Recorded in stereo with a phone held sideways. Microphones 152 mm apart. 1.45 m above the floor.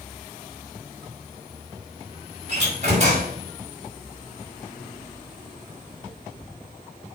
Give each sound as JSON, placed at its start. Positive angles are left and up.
{"t": 2.5, "sound": "a door slam", "side_deg": -45, "distance_m": 4.0}